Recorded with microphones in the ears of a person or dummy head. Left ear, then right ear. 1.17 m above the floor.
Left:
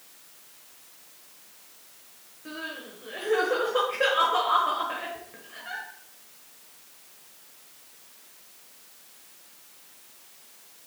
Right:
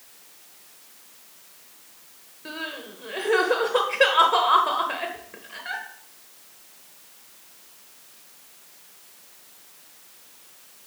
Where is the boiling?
No boiling in this recording.